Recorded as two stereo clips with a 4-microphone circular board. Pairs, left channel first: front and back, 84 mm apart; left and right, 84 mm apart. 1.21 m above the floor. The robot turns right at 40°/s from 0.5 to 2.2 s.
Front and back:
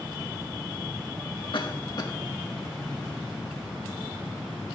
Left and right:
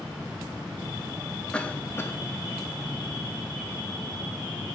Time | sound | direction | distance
1.5 | a cough | 15° left | 1.6 m